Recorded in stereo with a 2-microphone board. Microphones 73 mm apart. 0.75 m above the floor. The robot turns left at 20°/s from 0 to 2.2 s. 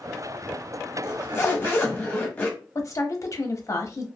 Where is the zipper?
40° left (ahead or behind), 0.9 m; by 2.6 s 20° left (ahead or behind), 0.9 m.